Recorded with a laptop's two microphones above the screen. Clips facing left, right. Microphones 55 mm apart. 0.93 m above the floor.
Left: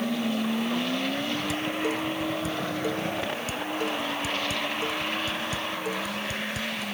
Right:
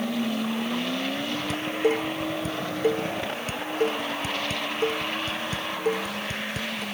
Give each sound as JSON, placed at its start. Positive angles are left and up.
{"t": 1.5, "sound": "dishes clattering", "side_deg": -40}